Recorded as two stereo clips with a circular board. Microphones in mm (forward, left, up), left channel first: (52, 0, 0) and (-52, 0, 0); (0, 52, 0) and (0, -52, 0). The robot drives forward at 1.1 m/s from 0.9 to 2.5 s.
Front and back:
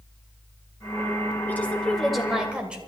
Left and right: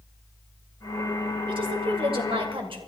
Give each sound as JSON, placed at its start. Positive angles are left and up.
{"t": 1.5, "sound": "a woman speaking", "azimuth_deg": -70, "distance_m": 2.5}